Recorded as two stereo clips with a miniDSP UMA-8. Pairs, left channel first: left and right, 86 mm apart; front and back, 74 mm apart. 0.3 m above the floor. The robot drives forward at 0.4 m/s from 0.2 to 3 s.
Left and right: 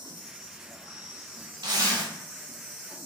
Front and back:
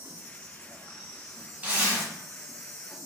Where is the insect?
120° left, 2.0 m; by 3.0 s 145° left, 2.5 m.